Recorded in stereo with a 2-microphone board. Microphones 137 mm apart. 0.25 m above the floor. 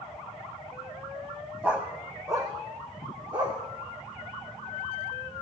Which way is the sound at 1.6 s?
10° right (ahead or behind).